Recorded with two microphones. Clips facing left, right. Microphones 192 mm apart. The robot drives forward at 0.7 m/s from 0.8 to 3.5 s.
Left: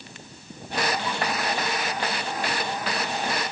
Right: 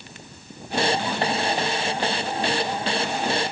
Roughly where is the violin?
No violin in this recording.